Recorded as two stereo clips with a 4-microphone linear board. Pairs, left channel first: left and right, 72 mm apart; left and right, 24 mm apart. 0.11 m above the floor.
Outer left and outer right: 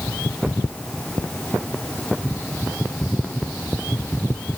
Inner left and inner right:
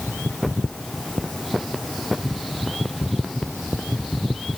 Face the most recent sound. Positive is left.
No sound to turn to.